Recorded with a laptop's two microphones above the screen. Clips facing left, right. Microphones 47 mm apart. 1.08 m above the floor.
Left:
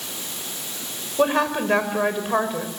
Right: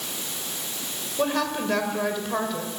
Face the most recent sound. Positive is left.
turn(degrees=25)  # may be behind; listen again after turning